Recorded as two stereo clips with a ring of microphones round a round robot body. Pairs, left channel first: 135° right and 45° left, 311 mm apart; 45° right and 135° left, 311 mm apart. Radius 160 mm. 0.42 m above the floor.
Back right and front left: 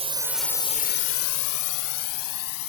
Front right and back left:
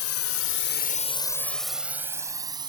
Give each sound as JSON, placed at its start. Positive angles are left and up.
{"t": 0.0, "sound": "a drone", "azimuth_deg": -20}